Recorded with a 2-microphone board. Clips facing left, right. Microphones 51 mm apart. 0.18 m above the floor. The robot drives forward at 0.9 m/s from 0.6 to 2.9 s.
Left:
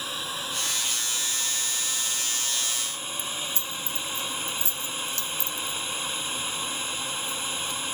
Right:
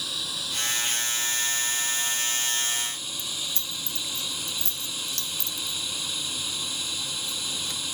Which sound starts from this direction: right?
Keys jangling, at 3.2 s.